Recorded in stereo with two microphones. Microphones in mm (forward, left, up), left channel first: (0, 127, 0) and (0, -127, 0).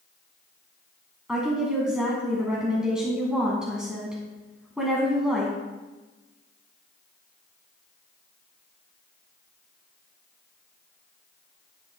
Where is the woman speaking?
5° right (ahead or behind), 1.4 m.